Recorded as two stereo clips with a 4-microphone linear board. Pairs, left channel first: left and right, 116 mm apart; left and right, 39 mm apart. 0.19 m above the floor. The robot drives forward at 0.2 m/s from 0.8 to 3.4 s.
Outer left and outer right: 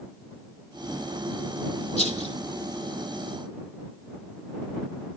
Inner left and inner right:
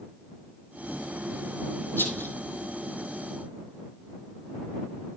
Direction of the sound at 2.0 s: 80° left.